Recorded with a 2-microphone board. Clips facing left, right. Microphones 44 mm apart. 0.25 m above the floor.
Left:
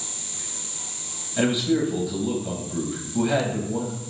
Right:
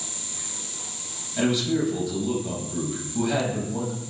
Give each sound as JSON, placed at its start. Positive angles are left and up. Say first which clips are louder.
{"t": 1.4, "sound": "a man speaking", "louder": "left 2 dB", "side_deg": 15, "distance_m": 1.0}